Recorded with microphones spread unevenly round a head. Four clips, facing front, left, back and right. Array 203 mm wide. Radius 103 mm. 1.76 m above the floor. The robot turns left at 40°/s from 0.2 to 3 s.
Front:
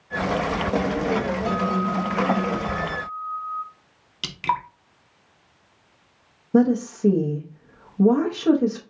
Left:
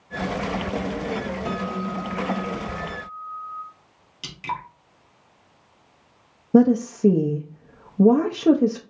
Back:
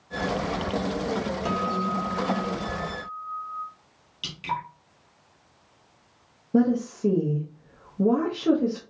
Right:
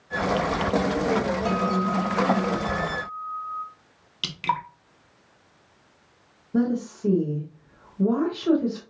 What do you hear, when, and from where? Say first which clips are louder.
1.4 s a guitar: right 4 dB, front 3 dB; 155° right, 1.9 m; by 3.6 s 140° left, 1.9 m
4.2 s dripping: right 4 dB, front 6 dB; 40° right, 0.7 m
6.5 s a woman speaking: left 8 dB, front 3 dB; 80° left, 0.6 m